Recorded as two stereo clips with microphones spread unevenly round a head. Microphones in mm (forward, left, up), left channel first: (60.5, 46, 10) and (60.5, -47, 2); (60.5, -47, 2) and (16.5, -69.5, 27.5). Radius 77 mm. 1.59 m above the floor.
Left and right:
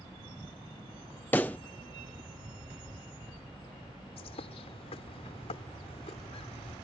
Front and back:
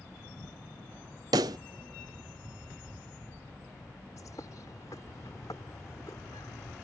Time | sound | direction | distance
1.3 | a pop | 170° left | ?
4.2 | a bird | 85° left | ?